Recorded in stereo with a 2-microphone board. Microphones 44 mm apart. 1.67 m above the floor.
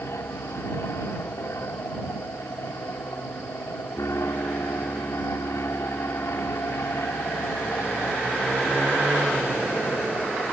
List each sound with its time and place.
0.0 s an aircraft: 75° left (ahead or behind)